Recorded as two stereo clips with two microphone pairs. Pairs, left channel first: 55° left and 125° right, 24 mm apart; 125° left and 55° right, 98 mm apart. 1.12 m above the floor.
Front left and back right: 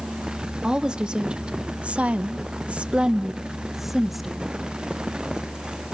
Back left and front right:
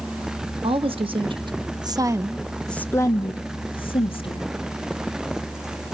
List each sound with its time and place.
0.6 s a woman speaking: 75° right, 1.9 m; by 4.5 s 145° left, 1.9 m